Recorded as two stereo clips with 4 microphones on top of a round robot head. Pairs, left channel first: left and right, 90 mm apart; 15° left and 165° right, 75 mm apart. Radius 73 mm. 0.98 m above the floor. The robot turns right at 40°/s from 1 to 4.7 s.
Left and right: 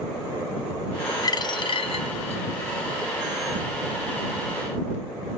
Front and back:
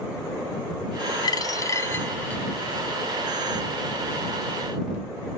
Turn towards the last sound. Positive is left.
turn(degrees=180)